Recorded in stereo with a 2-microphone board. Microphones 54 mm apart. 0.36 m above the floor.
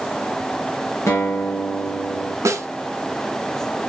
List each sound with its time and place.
1.1 s a guitar: 60° left (ahead or behind), 2.5 m
2.5 s a snare drum: 70° right (ahead or behind), 0.7 m